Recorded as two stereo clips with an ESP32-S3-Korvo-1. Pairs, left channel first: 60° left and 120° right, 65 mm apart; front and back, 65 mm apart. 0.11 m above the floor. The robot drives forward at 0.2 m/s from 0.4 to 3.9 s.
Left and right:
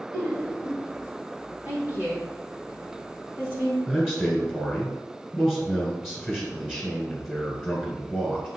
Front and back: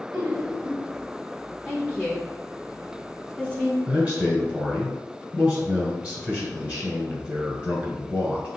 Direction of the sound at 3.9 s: 170° left.